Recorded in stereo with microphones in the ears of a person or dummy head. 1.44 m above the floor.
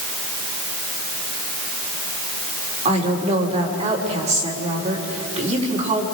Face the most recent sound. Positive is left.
turn(degrees=-30)  # may be behind; listen again after turning